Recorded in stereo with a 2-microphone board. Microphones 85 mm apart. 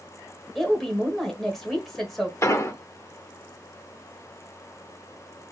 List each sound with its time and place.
0.6 s a woman speaking: centre (ahead or behind), 1.6 m
2.4 s an explosion: 35° left (ahead or behind), 0.7 m